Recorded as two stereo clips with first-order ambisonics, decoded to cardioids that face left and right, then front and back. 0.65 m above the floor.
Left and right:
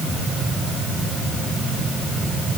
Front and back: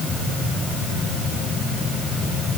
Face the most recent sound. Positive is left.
No sound to turn to.